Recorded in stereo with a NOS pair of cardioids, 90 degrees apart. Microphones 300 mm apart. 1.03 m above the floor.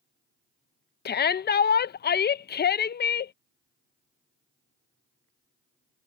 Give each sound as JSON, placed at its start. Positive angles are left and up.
{"t": 1.1, "sound": "a shout", "azimuth_deg": 35}